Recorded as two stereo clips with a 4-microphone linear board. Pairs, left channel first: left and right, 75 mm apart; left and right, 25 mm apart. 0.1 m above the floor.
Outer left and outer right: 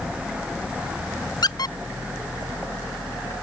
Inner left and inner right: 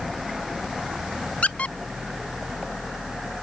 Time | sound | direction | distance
1.4 | a squeak | 60° left (ahead or behind) | ?